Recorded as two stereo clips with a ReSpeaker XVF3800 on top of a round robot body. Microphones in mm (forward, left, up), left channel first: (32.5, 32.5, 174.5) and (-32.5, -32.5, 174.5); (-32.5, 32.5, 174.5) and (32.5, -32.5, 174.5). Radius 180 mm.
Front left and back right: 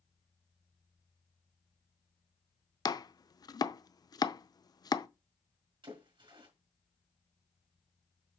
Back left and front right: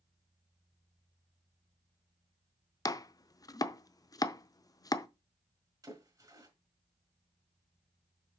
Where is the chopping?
90° left, 0.7 m.